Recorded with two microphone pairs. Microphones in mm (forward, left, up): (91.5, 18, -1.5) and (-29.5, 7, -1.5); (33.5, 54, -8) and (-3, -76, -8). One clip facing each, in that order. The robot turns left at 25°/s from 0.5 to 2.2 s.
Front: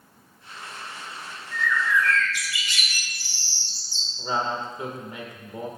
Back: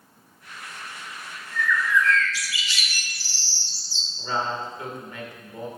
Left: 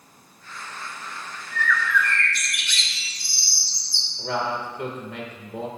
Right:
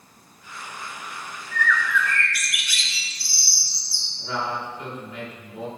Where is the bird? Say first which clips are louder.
Back 1 dB, even; 10° right, 1.2 m; by 4.1 s 25° right, 1.2 m.